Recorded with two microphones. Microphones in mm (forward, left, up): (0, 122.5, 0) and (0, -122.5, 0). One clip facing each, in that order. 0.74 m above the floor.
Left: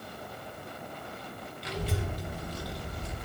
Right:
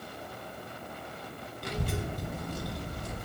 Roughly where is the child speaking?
Right.